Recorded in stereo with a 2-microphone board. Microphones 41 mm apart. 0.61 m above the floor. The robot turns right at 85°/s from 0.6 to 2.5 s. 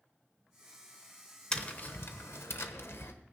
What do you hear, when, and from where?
1.5 s tapping: 15° left, 1.0 m; by 3.1 s 100° left, 1.0 m